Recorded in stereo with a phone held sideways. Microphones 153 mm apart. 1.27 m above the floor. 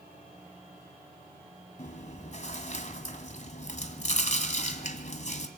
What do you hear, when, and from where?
1.8 s chewing: 50° left (ahead or behind), 1.7 m